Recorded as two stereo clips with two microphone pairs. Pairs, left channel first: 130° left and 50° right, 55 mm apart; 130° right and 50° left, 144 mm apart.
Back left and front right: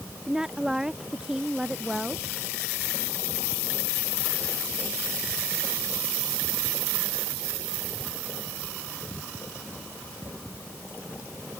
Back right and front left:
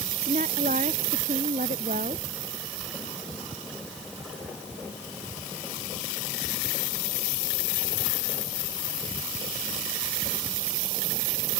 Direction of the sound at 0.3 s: 25° left.